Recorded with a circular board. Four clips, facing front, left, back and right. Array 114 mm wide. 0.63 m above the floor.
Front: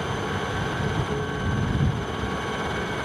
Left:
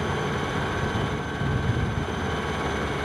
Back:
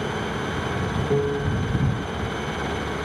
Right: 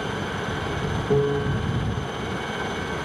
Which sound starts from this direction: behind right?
A piano, at 1.1 s.